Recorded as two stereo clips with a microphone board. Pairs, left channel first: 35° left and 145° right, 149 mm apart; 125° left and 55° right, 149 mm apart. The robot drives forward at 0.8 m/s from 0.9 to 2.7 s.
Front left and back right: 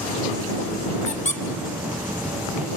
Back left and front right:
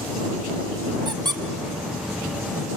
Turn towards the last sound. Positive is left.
turn(degrees=175)